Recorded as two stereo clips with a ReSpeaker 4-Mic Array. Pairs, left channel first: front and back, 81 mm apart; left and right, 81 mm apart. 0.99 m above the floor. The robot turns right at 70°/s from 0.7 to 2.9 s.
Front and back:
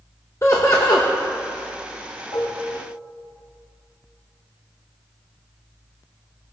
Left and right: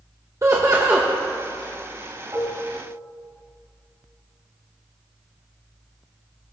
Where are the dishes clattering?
25° right, 3.5 m; by 2.6 s 5° right, 3.5 m.